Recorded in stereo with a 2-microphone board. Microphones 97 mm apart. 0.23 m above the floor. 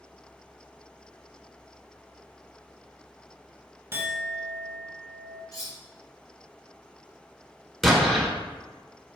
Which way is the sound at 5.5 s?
40° left (ahead or behind).